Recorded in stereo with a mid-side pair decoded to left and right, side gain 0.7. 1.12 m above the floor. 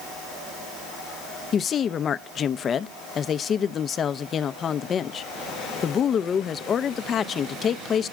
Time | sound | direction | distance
1.5 | a woman speaking | 35° left | 0.6 m